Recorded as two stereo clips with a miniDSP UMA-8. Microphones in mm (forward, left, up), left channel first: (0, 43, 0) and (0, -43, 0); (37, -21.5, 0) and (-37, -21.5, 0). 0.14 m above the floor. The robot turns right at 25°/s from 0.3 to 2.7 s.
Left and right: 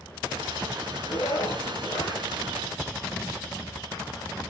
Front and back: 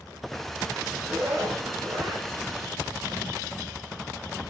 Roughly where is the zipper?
Behind left.